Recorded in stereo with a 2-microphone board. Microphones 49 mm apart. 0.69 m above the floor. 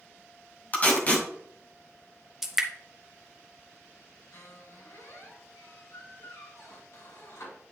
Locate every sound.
0.7 s tape being pulled: 30° left (ahead or behind), 1.7 m
2.4 s dripping: 5° right (ahead or behind), 0.9 m
4.3 s a squeak: 75° left (ahead or behind), 2.5 m